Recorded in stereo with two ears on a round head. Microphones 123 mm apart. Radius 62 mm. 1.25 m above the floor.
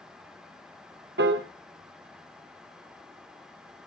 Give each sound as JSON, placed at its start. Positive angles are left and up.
{"t": 1.2, "sound": "a piano", "side_deg": -75, "distance_m": 1.1}